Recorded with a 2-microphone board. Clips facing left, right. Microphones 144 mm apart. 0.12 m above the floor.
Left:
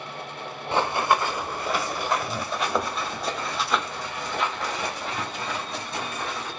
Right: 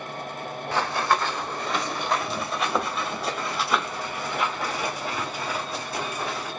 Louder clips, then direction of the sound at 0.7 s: Left 2 dB; 20° left (ahead or behind).